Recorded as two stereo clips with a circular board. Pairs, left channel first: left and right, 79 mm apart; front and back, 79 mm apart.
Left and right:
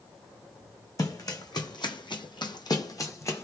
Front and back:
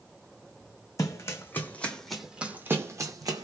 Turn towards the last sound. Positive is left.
turn(degrees=145)